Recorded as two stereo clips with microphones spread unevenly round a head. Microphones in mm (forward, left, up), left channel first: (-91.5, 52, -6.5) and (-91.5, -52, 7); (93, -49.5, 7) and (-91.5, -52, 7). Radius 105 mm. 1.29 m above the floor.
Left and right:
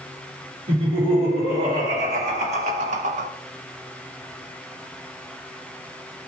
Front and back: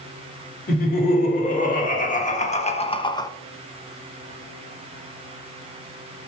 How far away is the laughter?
About 2.5 m.